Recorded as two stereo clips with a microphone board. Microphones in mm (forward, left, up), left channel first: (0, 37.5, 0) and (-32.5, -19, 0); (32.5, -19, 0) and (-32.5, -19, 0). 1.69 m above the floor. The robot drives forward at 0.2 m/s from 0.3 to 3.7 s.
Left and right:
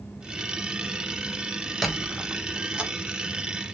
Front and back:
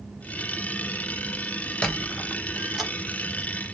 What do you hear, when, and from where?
1.8 s a squeak: 45° right, 0.5 m; by 2.9 s 115° right, 0.5 m